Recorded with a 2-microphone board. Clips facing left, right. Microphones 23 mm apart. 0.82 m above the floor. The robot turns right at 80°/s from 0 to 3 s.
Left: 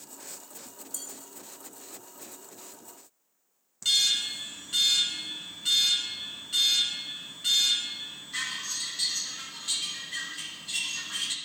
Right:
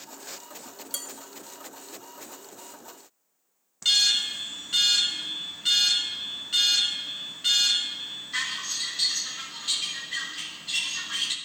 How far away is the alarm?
About 0.9 m.